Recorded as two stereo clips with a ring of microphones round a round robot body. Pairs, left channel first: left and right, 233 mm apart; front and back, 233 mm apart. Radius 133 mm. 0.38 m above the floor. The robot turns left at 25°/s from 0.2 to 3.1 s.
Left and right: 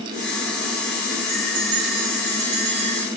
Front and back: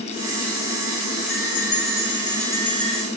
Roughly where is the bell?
Ahead right.